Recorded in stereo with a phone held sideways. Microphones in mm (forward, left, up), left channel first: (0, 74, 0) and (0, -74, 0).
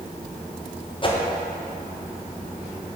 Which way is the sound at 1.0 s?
35° left (ahead or behind).